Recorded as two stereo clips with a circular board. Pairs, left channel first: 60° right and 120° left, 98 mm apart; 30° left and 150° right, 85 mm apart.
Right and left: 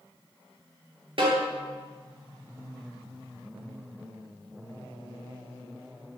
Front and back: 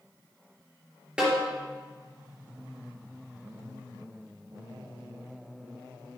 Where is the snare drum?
130° left, 4 m.